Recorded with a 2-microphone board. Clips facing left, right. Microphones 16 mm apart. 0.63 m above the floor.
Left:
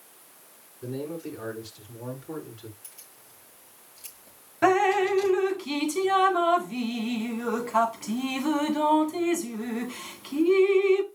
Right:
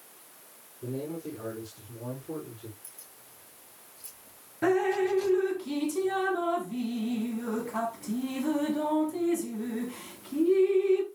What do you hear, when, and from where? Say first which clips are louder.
0.8 s a man speaking: left 2 dB; 85° left, 7.5 m; by 2.7 s 80° left, 8.5 m
2.8 s keys jangling: left 1 dB; 85° left, 7.5 m
4.6 s dripping: left 4 dB; 75° left (ahead or behind), 1.3 m